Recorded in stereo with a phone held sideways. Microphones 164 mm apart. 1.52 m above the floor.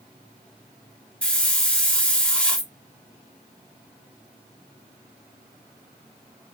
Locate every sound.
1.2 s a hiss: 5° left (ahead or behind), 0.7 m